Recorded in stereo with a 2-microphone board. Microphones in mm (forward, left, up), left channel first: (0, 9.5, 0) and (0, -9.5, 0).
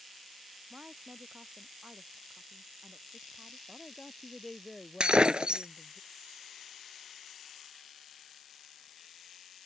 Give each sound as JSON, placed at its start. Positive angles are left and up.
{"t": 0.7, "sound": "a woman speaking", "side_deg": -80}
{"t": 3.7, "sound": "a woman speaking", "side_deg": 5}
{"t": 5.0, "sound": "breaking glass", "side_deg": -70}